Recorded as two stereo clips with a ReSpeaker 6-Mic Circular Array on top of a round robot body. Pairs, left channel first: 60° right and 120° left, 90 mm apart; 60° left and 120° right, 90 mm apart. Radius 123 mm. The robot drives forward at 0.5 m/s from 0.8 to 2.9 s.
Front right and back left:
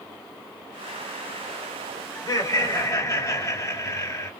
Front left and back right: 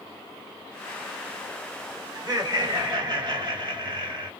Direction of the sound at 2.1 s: 95° right.